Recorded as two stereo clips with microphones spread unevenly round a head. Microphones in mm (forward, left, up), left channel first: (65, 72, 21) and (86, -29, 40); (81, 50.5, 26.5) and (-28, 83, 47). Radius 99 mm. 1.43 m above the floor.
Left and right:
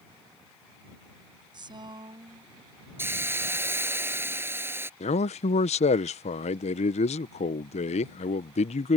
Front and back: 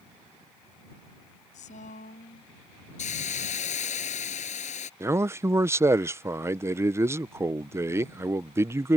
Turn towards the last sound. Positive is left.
turn(degrees=100)